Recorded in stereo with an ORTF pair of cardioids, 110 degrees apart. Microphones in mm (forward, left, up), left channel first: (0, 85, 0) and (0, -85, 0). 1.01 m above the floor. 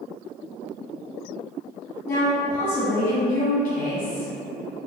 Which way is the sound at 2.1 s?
55° left.